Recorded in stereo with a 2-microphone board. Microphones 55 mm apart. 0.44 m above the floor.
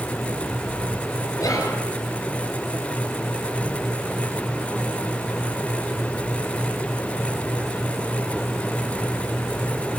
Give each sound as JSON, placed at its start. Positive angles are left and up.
{"t": 1.4, "sound": "whispering", "side_deg": 70, "distance_m": 6.0}